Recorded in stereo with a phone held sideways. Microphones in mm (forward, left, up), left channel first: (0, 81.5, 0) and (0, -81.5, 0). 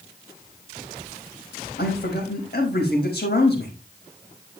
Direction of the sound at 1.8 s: 80° left.